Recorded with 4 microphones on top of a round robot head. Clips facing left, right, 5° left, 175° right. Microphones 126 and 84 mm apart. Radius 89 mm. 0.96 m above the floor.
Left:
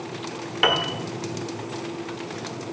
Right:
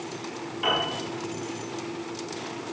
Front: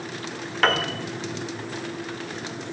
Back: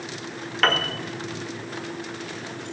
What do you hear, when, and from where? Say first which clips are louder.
0.6 s a piano: left 4 dB, front 1 dB; 85° left, 1.3 m